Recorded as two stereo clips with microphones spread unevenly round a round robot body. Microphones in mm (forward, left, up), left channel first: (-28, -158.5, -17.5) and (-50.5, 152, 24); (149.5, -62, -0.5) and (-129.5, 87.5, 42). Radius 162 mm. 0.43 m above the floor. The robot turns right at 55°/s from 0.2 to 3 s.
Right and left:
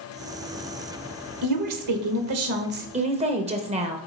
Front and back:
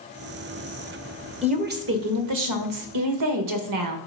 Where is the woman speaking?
80° left, 1.3 m; by 4.0 s 165° left, 1.3 m.